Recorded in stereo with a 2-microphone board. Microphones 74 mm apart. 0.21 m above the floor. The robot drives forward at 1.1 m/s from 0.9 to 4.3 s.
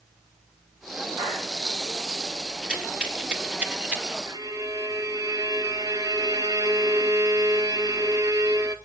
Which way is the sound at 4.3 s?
50° right (ahead or behind).